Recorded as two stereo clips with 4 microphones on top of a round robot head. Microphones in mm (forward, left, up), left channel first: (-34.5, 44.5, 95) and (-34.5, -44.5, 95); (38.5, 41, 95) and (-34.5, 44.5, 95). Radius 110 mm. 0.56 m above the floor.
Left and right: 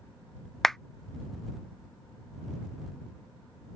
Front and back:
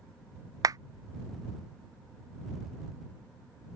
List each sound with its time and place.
0.6 s a clap: 175° left